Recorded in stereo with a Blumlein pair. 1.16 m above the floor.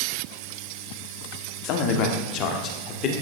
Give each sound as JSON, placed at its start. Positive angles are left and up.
{"t": 1.6, "sound": "a man speaking", "azimuth_deg": 40, "distance_m": 2.0}